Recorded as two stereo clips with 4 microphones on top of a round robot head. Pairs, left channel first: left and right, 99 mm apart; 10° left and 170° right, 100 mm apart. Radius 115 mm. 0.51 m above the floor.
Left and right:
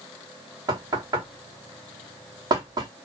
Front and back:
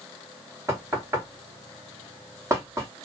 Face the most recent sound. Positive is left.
turn(degrees=-120)